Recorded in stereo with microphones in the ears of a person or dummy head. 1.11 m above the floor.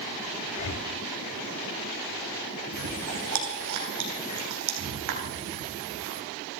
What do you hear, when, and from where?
0.5 s breathing: 80° left, 2 m
2.7 s chewing: 70° right (ahead or behind), 3.5 m